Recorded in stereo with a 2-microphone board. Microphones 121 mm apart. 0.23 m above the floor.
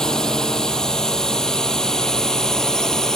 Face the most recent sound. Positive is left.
turn(degrees=5)  # may be behind; listen again after turning